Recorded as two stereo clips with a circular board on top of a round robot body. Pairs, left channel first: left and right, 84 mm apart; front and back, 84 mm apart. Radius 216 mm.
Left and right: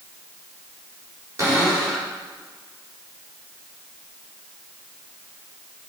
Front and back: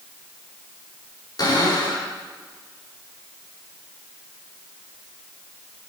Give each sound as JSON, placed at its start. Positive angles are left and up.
{"t": 1.4, "sound": "a cupboard door", "azimuth_deg": -35, "distance_m": 4.0}